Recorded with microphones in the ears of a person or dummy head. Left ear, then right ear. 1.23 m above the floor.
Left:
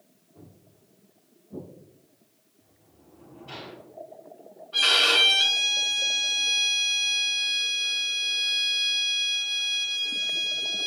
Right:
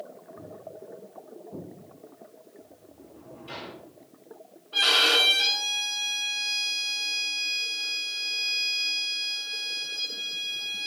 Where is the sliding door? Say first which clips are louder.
Right 10 dB; 30° right (ahead or behind), 1.8 m.